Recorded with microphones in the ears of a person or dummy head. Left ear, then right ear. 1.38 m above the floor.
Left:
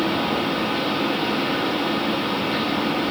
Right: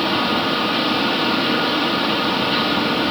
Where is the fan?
30° right (ahead or behind), 1.5 m.